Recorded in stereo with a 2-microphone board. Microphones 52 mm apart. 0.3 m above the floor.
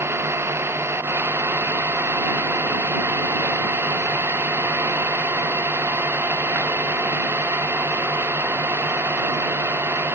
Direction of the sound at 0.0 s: 55° right (ahead or behind).